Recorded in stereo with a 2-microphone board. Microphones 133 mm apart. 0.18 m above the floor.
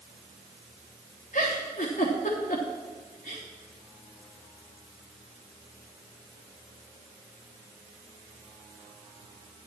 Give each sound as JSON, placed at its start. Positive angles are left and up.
{"t": 1.3, "sound": "a giggle", "side_deg": 70, "distance_m": 3.5}